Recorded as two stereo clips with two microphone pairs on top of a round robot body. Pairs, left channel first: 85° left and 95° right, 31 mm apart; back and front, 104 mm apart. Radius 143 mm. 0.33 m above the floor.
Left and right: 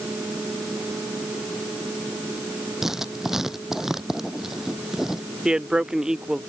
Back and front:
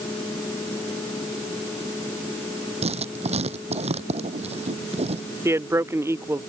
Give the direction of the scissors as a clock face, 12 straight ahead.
No scissors in this recording.